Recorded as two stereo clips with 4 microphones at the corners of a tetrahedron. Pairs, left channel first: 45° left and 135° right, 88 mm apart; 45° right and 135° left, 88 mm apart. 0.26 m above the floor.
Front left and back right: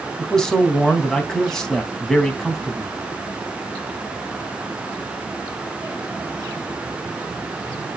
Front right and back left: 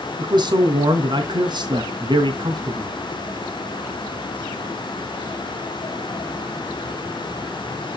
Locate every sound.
0.2 s a man speaking: 130° left, 2.5 m